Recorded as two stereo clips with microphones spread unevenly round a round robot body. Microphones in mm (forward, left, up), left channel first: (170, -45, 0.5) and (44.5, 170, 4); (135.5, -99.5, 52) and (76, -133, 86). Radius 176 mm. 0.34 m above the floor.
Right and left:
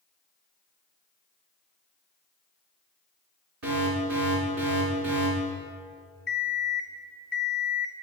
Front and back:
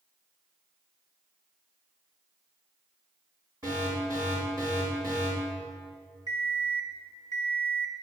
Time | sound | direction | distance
3.6 | an alarm | 145° left | 3.5 m
6.3 | an alarm clock | 125° right | 1.4 m